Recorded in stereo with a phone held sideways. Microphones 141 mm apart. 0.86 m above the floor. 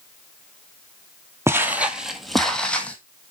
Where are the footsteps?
20° right (ahead or behind), 0.9 m; by 3.0 s 10° left (ahead or behind), 1.6 m.